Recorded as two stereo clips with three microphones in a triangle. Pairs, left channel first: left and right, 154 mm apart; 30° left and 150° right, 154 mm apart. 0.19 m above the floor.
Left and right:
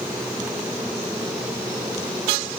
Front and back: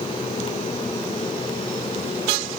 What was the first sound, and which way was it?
Only background noise.